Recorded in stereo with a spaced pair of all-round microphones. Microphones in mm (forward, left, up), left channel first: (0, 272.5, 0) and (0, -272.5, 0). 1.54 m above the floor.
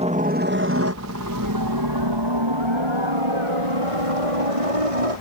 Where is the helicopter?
10° right (ahead or behind); by 5.2 s 70° right (ahead or behind).